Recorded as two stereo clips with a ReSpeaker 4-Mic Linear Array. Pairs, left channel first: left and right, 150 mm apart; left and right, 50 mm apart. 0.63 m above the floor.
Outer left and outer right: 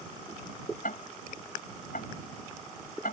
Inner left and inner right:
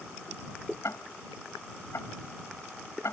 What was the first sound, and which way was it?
Ticking, 80° left.